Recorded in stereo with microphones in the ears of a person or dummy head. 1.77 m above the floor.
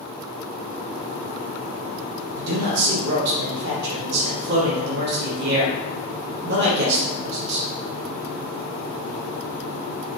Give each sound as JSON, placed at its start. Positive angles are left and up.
{"t": 2.4, "sound": "a man speaking", "side_deg": -70, "distance_m": 1.4}